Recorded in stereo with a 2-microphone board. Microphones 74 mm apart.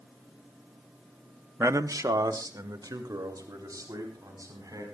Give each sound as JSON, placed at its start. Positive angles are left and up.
{"t": 1.6, "sound": "a man speaking", "side_deg": -35, "distance_m": 0.7}